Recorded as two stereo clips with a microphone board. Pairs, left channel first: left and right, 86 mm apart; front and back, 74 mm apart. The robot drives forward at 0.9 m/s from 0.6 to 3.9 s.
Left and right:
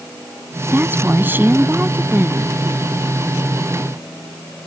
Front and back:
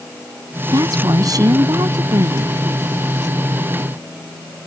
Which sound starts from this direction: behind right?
A woman speaking, at 0.7 s.